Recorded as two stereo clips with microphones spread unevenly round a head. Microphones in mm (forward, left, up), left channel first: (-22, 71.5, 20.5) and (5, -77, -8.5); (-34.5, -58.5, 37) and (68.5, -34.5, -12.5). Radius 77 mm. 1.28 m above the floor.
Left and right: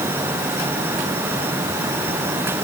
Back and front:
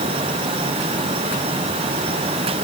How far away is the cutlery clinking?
I don't hear cutlery clinking.